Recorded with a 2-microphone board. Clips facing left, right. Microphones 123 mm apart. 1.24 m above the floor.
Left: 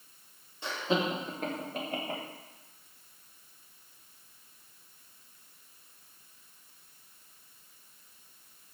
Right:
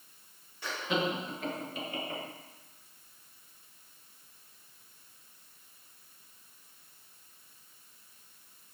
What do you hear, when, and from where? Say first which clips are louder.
0.6 s laughter: left 2 dB; 20° left (ahead or behind), 1.2 m; by 2.2 s 55° left (ahead or behind), 2 m